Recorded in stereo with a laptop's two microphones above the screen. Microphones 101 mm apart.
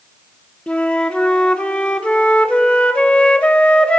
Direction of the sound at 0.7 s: 10° left (ahead or behind).